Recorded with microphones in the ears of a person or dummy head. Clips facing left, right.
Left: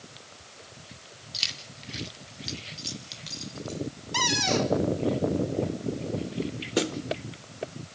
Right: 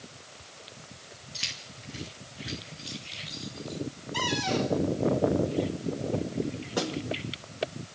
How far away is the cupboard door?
About 1.8 m.